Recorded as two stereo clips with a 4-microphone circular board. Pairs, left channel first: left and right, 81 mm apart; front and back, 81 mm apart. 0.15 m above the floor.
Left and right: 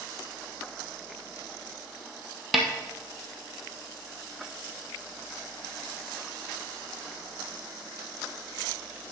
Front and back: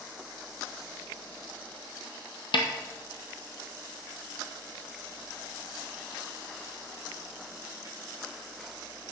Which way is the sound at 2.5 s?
Straight ahead.